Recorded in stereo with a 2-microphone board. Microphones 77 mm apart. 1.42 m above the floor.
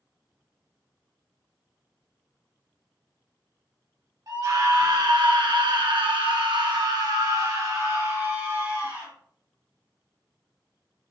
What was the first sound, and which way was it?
A scream, 50° right (ahead or behind).